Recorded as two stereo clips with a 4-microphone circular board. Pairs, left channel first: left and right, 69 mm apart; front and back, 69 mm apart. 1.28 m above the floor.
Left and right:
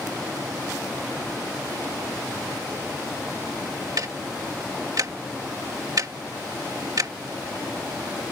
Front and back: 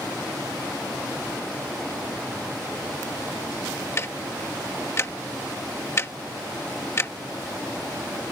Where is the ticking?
55° right.